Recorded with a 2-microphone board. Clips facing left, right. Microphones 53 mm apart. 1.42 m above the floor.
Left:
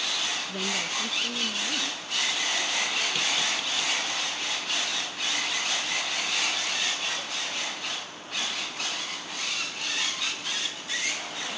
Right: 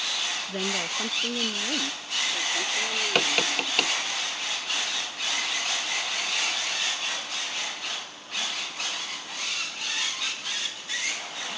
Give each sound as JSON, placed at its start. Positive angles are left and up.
{"t": 0.5, "sound": "a woman speaking", "side_deg": -25}
{"t": 3.1, "sound": "tapping", "side_deg": -65}